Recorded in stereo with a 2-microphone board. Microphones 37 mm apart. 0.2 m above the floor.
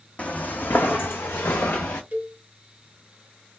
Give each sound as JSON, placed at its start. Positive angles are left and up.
{"t": 0.2, "sound": "footsteps", "side_deg": 40, "distance_m": 0.8}
{"t": 2.1, "sound": "a cowbell", "side_deg": -45, "distance_m": 1.0}